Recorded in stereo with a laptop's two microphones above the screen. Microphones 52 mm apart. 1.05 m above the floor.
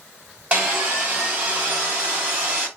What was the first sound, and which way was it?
Sawing, 35° right (ahead or behind).